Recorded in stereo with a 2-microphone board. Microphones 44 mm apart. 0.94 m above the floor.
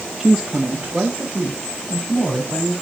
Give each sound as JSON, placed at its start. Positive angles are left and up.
{"t": 0.2, "sound": "a woman speaking", "side_deg": -10, "distance_m": 0.6}